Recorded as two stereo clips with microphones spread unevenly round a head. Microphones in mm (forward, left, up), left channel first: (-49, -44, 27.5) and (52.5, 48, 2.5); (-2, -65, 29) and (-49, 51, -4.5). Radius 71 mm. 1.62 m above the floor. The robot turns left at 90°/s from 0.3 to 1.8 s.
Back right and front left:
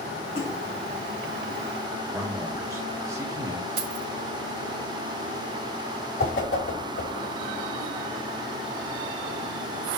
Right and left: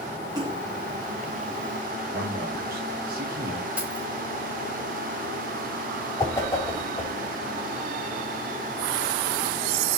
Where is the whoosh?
135° right, 4.5 m.